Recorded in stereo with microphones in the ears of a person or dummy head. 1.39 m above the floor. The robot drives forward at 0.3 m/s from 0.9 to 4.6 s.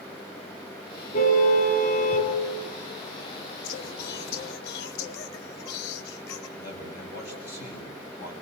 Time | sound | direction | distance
1.1 | a car horn | 45° left (ahead or behind) | 6 m
3.6 | singing | 55° left (ahead or behind) | 2 m
6.6 | a man speaking | 55° left (ahead or behind) | 8.5 m